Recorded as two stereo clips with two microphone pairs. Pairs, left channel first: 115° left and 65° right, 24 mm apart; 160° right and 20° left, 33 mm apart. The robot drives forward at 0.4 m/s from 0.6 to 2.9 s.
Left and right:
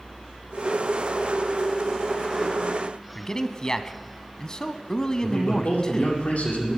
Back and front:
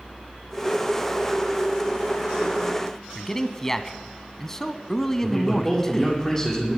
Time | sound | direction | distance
3.1 | a man speaking | 140° left | 1.1 m
5.2 | a man speaking | 125° left | 7.5 m